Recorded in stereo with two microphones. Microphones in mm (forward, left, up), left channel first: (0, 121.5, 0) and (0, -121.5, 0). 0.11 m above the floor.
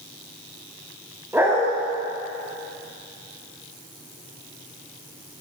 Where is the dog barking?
10° right (ahead or behind), 6.5 m.